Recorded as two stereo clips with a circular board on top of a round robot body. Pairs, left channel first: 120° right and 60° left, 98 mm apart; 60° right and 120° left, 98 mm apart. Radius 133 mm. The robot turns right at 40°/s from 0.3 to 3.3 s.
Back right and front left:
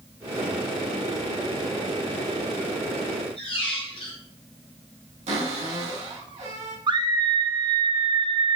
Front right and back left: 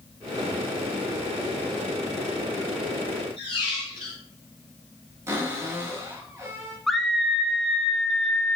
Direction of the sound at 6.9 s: 30° left.